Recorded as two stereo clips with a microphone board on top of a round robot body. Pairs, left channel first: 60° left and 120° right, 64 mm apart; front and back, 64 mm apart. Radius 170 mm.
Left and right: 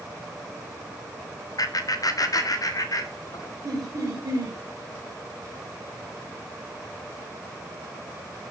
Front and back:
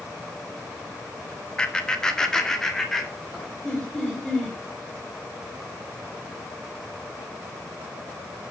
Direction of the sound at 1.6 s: 75° left.